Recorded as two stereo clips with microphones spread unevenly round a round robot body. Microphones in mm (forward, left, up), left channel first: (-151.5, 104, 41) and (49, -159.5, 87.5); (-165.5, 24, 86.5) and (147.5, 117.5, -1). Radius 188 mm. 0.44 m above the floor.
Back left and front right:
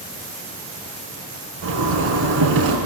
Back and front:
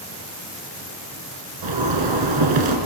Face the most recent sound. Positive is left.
turn(degrees=5)